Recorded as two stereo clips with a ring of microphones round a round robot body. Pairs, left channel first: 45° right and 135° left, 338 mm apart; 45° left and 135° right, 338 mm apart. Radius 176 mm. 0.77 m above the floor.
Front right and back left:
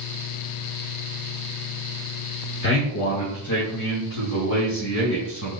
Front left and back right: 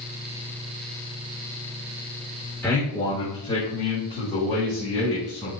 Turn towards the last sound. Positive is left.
turn(degrees=-20)